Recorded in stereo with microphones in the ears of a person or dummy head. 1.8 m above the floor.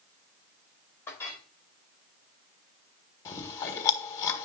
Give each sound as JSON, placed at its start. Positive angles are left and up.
{"t": 1.1, "sound": "a clink", "side_deg": 5, "distance_m": 2.5}
{"t": 3.2, "sound": "chewing", "side_deg": 25, "distance_m": 1.5}